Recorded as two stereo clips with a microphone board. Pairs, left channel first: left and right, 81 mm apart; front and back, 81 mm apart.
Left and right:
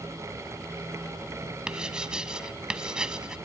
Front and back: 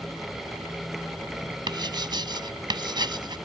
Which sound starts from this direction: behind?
Writing, at 1.7 s.